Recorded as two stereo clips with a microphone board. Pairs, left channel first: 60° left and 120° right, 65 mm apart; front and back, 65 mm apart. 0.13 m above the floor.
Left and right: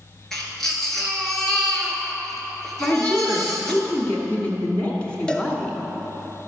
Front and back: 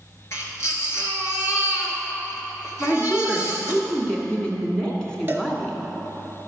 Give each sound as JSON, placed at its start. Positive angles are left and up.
{"t": 0.3, "sound": "a baby crying", "azimuth_deg": -20, "distance_m": 1.6}
{"t": 2.8, "sound": "a woman speaking", "azimuth_deg": 50, "distance_m": 1.6}
{"t": 5.3, "sound": "a cowbell", "azimuth_deg": 135, "distance_m": 1.0}